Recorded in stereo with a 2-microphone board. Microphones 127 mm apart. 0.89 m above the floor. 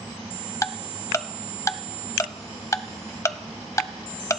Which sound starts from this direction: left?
Ticking, at 0.6 s.